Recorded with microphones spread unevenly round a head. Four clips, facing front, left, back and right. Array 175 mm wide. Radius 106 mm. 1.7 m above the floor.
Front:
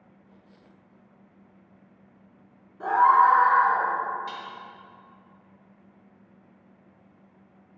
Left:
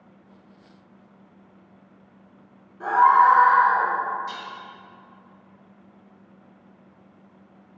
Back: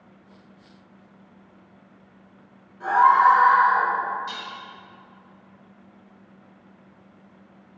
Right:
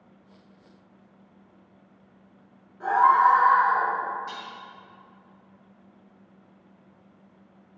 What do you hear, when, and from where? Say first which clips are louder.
2.8 s a scream: left 3 dB, back 2 dB; 15° left, 2 m; by 3.9 s 30° left, 3 m
4.3 s dishes clattering: left 3 dB, back 1 dB; 35° left, 1.4 m